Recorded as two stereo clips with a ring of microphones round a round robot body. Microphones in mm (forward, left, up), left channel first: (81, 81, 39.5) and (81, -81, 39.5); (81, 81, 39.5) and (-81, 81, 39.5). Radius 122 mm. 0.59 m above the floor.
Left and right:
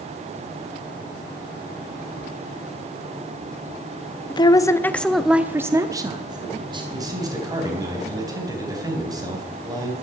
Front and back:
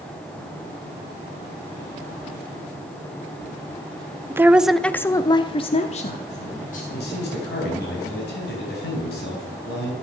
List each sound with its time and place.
4.3 s a woman speaking: 120° left, 0.7 m; by 6.8 s 35° right, 1.4 m
6.9 s a man speaking: 25° right, 3.5 m